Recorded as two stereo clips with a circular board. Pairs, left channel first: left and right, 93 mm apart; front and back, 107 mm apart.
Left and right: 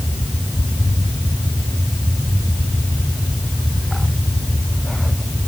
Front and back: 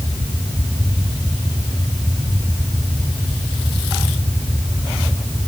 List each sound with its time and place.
Only background noise.